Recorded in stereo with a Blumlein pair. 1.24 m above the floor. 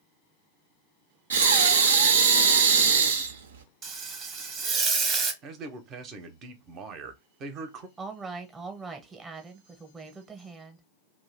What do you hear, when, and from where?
1.3 s breathing: 65° right, 0.5 m
3.8 s frying: 30° right, 0.8 m
5.4 s a man speaking: 35° right, 0.7 m
8.0 s a woman speaking: 15° right, 0.8 m